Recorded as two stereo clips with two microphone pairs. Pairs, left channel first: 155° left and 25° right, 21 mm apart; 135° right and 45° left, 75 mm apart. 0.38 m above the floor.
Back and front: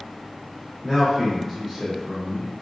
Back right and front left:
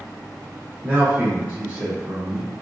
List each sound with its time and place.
0.8 s a man speaking: 75° left, 0.8 m